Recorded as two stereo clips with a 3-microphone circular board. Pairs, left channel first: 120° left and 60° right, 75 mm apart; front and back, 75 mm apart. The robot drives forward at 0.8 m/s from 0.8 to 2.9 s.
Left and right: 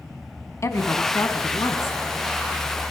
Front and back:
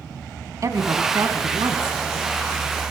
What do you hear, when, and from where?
0.6 s a woman speaking: 155° left, 1.5 m; by 2.0 s 165° left, 2.5 m